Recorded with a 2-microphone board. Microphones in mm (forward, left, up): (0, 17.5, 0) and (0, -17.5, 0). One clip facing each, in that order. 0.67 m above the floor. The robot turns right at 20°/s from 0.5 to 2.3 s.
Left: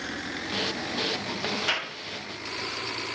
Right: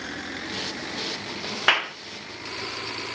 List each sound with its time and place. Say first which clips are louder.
1.7 s a clap: right 12 dB; 55° right (ahead or behind), 1.1 m